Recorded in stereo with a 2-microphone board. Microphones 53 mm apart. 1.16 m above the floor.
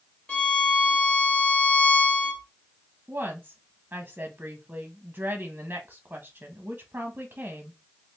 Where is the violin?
20° left (ahead or behind), 0.9 m.